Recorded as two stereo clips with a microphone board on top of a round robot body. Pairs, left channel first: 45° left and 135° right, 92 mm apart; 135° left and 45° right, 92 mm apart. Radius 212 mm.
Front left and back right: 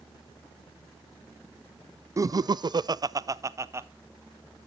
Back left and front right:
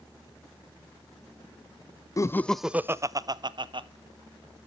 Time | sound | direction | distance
2.2 | laughter | straight behind | 0.8 m